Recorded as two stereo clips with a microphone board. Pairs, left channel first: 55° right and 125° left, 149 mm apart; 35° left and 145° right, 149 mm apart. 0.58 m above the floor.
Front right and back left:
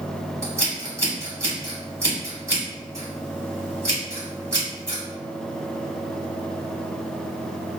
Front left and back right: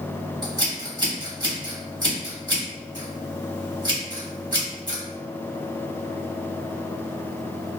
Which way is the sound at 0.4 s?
Straight behind.